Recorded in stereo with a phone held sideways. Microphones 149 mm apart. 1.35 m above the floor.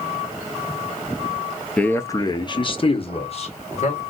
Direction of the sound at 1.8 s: 10° left (ahead or behind).